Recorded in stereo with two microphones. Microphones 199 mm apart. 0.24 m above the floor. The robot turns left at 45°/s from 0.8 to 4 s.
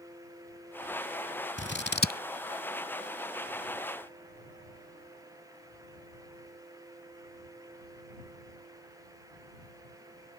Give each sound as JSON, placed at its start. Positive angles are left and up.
{"t": 1.6, "sound": "scissors", "side_deg": 70}